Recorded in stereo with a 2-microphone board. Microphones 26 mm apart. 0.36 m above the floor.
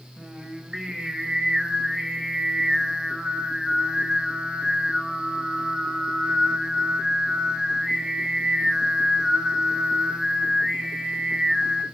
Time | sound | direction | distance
0.2 | singing | 25° right (ahead or behind) | 0.6 m